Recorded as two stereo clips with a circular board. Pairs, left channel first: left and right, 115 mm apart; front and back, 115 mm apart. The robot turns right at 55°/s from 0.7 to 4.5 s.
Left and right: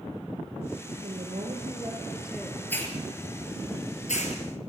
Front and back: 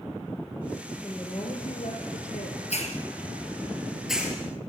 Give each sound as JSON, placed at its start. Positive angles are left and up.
{"t": 1.0, "sound": "a woman speaking", "azimuth_deg": -75, "distance_m": 4.5}
{"t": 2.7, "sound": "a hiss", "azimuth_deg": 15, "distance_m": 4.5}